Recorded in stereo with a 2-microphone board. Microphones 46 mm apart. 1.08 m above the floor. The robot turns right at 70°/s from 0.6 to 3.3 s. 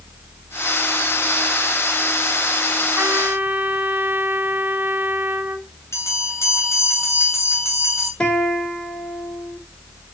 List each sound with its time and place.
3.0 s a trumpet: 65° right (ahead or behind), 1.8 m; by 5.7 s 45° right (ahead or behind), 1.8 m
5.9 s a bell: 80° left, 3.5 m
8.2 s a guitar: 25° left (ahead or behind), 2.5 m